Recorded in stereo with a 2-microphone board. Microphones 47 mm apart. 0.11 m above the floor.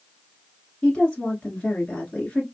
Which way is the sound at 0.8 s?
20° left (ahead or behind).